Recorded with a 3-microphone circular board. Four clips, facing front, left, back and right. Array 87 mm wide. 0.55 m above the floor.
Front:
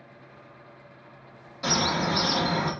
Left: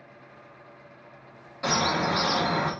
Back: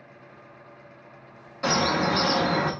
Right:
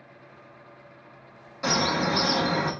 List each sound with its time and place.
1.6 s a bird: straight behind, 0.5 m